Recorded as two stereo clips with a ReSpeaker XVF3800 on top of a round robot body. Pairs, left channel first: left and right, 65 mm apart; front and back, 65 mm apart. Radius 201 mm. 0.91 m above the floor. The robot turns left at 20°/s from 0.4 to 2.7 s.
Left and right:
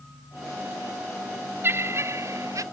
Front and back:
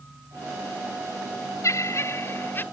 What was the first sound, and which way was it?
Laughter, 35° right.